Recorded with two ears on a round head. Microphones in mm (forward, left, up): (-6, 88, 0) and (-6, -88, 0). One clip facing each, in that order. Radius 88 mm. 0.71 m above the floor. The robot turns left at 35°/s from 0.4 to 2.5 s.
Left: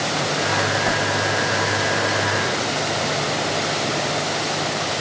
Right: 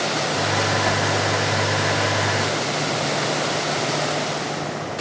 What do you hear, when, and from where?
0.8 s a whoosh: 5° left (ahead or behind); by 1.0 s 15° left (ahead or behind)